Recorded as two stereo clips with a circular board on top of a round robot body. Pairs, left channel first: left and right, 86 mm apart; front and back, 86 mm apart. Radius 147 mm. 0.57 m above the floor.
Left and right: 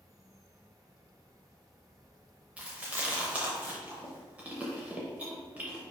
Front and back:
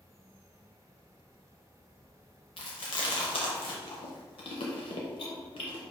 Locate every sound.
0.0 s an insect: 135° right, 1.0 m
2.6 s chewing: 15° right, 0.5 m